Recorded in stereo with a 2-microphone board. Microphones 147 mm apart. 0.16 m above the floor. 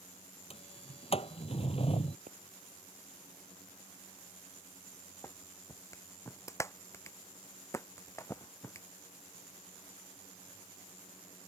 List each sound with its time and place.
0.5 s a sliding door: 40° left (ahead or behind)
2.3 s a pop: 65° right (ahead or behind)
5.2 s a clap: 20° left (ahead or behind)